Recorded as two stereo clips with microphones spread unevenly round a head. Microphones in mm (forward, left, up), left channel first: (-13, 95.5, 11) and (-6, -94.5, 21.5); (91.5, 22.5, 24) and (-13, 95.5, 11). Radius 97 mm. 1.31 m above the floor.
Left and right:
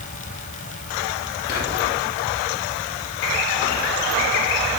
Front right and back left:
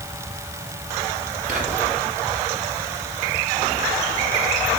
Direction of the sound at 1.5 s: 130° left.